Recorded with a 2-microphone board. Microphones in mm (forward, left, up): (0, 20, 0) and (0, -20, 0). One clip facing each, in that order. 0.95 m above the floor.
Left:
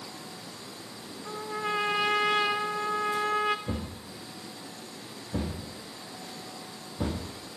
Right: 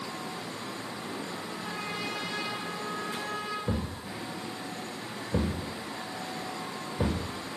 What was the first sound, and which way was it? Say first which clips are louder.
A trumpet: left 5 dB; 80° left.